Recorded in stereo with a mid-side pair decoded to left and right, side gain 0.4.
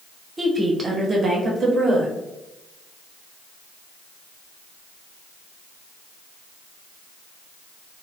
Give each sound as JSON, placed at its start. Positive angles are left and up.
{"t": 0.4, "sound": "a woman speaking", "azimuth_deg": -25, "distance_m": 0.8}